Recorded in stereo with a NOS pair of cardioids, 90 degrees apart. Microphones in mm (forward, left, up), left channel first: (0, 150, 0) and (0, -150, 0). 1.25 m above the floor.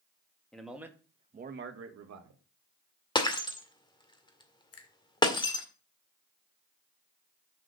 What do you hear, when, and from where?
0.5 s a man speaking: straight ahead, 2.5 m; by 2.4 s 75° right, 1.9 m
3.1 s breaking glass: 15° left, 1.9 m
4.7 s a finger snap: 50° left, 1.9 m